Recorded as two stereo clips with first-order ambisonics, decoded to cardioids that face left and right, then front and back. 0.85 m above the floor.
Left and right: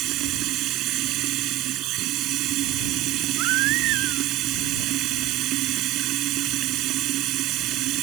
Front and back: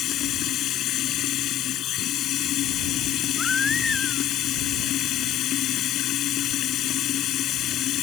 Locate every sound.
0.0 s running water: 50° right
3.4 s a baby crying: 75° right